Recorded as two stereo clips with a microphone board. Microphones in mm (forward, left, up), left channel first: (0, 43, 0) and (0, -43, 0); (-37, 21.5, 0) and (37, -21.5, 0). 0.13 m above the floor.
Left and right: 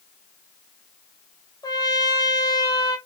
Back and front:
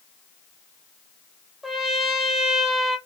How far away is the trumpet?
About 0.9 m.